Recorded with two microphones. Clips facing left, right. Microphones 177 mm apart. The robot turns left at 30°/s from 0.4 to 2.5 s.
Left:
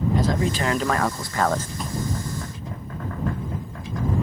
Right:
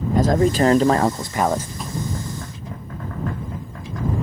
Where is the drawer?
Centre (ahead or behind); by 2.0 s 5° left (ahead or behind).